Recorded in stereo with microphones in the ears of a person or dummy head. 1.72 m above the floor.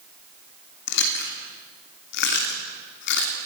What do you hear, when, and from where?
0.9 s chewing: 55° left (ahead or behind), 3 m